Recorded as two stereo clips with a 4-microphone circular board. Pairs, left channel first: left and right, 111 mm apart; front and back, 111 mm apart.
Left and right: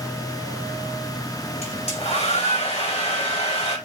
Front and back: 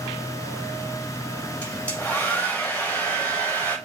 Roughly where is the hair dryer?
Left.